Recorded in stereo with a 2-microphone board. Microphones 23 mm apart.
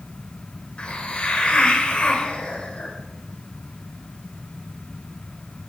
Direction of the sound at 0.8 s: 40° left (ahead or behind).